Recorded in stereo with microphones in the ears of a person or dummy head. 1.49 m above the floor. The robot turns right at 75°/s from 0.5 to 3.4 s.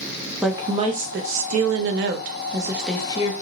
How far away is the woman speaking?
About 0.5 m.